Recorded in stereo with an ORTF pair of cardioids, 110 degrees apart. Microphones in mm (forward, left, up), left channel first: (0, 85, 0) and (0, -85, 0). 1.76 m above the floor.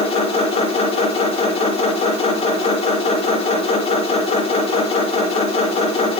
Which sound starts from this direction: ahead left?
A machine running, at 0.0 s.